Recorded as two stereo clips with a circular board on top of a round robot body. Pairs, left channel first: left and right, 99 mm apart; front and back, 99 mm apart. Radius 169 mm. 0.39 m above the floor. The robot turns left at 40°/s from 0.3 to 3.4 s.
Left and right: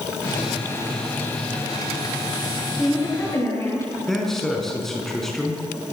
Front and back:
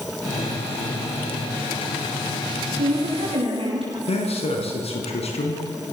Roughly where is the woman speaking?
Behind.